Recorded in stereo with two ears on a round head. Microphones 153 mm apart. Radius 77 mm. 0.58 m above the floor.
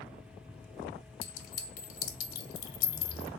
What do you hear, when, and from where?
1.2 s a clink: 55° left (ahead or behind), 0.8 m